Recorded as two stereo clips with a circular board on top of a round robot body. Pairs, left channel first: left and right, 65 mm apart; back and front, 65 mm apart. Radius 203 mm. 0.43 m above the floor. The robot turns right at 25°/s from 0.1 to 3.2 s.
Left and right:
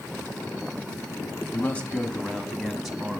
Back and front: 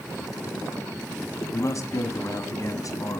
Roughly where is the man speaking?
Behind left.